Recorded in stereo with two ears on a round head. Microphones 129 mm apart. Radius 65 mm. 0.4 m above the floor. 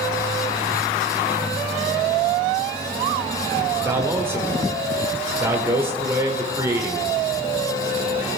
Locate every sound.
3.9 s a man speaking: 15° right (ahead or behind), 1.4 m